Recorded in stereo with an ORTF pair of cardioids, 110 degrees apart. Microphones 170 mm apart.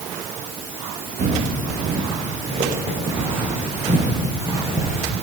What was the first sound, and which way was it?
Footsteps, 45° right.